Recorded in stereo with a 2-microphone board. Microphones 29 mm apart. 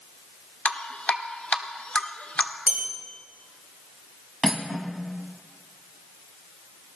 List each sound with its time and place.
0.7 s dripping: 50° left (ahead or behind), 1.5 m
2.7 s a bell: 60° right (ahead or behind), 9.5 m
4.4 s cutlery clinking: 5° right (ahead or behind), 2.5 m